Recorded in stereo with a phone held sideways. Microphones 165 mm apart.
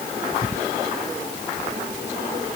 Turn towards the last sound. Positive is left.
No sound to turn to.